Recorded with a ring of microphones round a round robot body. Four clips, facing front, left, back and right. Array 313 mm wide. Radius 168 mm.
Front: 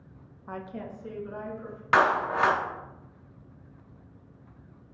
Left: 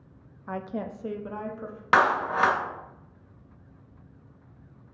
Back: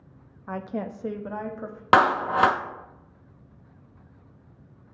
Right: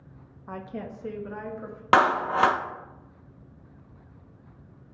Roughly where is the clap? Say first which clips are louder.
Right 1 dB, back 4 dB; behind right.